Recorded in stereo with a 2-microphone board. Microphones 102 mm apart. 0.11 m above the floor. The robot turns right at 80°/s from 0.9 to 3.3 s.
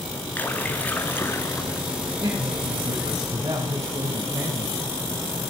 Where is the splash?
15° left (ahead or behind), 1.3 m; by 1.9 s 20° left (ahead or behind), 1.3 m.